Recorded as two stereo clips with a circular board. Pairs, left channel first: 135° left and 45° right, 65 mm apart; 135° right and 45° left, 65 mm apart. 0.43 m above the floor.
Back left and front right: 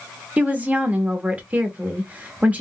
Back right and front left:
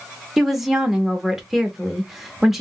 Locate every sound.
0.4 s a woman speaking: 30° right, 0.8 m